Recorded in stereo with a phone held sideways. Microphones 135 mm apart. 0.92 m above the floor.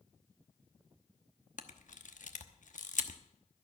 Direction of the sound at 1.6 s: 70° left (ahead or behind).